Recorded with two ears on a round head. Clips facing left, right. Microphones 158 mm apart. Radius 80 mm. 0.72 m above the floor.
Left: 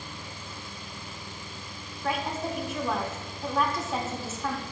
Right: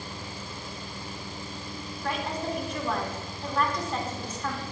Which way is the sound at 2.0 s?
5° left (ahead or behind).